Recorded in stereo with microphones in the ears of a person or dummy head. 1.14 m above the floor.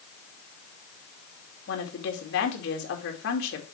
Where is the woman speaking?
65° left (ahead or behind), 2 m.